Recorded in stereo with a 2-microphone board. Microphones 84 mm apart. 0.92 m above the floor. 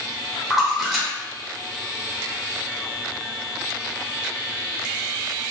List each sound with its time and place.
0.5 s a splash: 5° right (ahead or behind), 0.7 m